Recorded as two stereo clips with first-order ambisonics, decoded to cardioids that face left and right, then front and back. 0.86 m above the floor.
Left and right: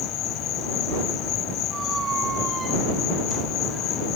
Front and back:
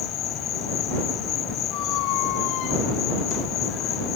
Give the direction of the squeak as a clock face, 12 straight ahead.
1 o'clock.